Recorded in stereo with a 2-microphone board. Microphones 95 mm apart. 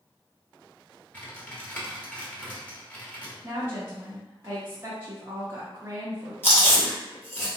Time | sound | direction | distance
1.1 | typing on a keyboard | 20° left (ahead or behind) | 1.1 m
3.4 | a woman speaking | 25° right (ahead or behind) | 0.9 m
6.4 | chewing | 25° left (ahead or behind) | 1.3 m